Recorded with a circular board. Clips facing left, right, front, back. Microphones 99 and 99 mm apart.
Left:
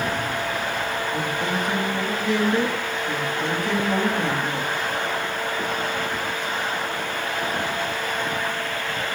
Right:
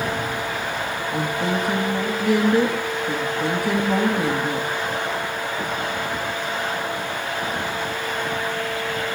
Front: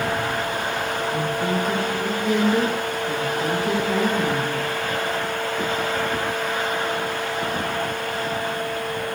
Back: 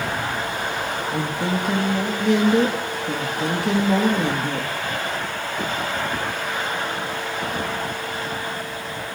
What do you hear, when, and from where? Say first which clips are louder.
1.1 s a woman speaking: right 2 dB, even; 170° right, 1.9 m